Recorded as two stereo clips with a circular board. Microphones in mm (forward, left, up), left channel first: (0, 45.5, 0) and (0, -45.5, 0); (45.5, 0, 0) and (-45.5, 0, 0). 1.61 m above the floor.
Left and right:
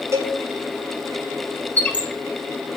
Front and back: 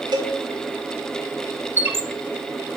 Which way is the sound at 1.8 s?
145° left.